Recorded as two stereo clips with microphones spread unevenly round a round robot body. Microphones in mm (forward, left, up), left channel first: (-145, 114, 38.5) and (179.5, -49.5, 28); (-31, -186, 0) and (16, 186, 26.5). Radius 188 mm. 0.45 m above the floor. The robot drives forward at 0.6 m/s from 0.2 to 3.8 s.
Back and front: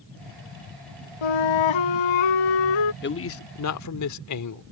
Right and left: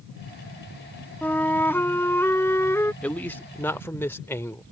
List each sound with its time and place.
1.2 s a flute: 175° left; by 2.9 s straight behind
3.0 s a man speaking: 175° right